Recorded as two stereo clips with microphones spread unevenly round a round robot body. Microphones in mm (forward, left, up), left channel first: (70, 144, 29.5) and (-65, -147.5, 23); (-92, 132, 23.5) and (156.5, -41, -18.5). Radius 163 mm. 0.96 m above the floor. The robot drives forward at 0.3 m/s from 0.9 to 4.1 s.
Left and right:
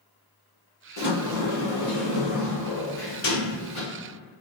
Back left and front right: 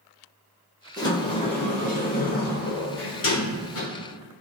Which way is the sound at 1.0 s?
70° left.